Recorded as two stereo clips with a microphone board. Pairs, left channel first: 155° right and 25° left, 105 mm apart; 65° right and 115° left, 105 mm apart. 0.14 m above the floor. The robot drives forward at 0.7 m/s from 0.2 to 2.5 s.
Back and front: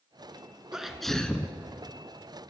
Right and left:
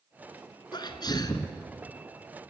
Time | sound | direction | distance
0.7 | a sneeze | 60° right | 1.6 m